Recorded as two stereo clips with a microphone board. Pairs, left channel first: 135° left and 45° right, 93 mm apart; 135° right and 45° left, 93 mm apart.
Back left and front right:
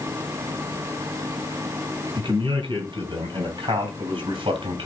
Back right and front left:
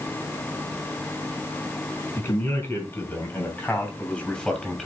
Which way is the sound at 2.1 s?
75° right.